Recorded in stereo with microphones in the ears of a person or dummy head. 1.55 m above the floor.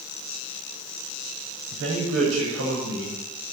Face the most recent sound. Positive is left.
turn(degrees=-65)  # may be behind; listen again after turning